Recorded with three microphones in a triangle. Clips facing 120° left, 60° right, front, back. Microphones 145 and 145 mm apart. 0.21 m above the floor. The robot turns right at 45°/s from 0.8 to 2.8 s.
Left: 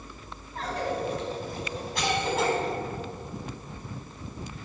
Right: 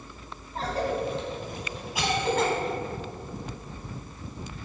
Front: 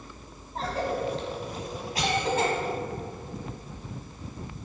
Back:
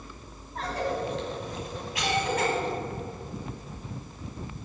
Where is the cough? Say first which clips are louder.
Right 2 dB, front 1 dB; 35° right, 1.2 m; by 2.5 s 40° left, 1.2 m.